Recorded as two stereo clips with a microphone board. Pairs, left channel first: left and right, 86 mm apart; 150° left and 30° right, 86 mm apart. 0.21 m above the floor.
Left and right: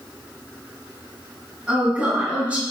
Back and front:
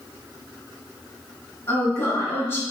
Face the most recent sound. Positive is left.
turn(degrees=-160)